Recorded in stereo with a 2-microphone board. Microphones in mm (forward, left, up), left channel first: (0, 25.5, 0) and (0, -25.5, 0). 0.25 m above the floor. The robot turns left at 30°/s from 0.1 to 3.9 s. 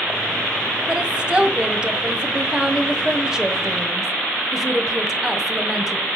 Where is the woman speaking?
15° right (ahead or behind), 1.5 m; by 6.1 s 10° right (ahead or behind), 1.5 m.